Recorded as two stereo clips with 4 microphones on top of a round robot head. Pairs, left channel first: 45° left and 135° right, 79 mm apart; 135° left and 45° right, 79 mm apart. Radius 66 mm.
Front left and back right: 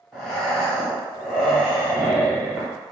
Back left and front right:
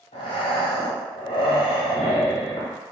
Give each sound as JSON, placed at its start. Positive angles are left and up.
{"t": 0.1, "sound": "breathing", "azimuth_deg": 135, "distance_m": 0.7}